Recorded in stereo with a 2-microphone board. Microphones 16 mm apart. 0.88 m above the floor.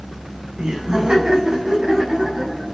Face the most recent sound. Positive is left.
turn(degrees=-45)  # may be behind; listen again after turning